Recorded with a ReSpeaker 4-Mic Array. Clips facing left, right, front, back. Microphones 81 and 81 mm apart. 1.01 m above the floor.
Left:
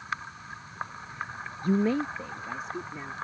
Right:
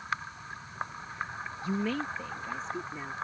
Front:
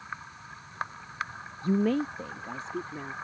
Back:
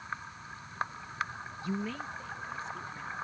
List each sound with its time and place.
1.6 s a woman speaking: 55° left; by 3.1 s 5° left